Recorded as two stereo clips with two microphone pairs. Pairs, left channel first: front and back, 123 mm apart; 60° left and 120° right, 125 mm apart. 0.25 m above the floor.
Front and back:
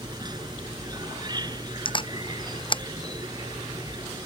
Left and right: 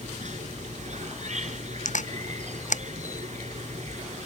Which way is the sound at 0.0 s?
125° right.